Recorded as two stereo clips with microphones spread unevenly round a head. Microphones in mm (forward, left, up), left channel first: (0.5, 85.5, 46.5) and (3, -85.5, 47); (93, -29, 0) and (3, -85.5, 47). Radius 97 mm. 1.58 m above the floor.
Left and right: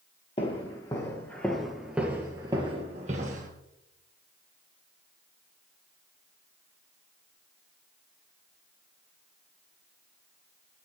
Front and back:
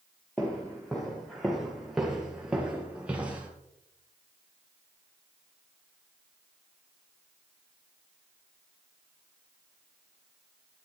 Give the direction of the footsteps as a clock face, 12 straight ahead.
7 o'clock.